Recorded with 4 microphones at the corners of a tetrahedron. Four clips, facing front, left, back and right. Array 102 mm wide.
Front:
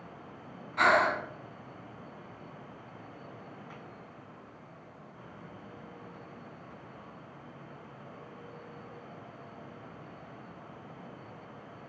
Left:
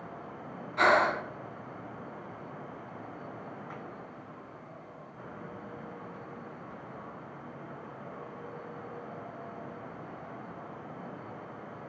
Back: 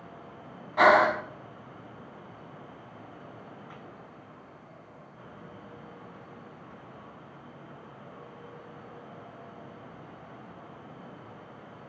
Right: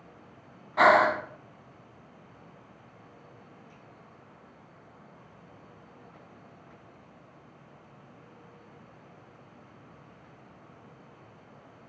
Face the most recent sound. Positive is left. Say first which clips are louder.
# right 4 dB, back 5 dB
turn(degrees=-130)